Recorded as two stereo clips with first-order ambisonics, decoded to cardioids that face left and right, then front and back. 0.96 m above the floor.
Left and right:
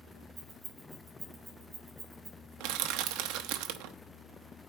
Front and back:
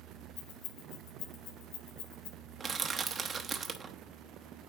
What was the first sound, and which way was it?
Keys jangling, 10° right.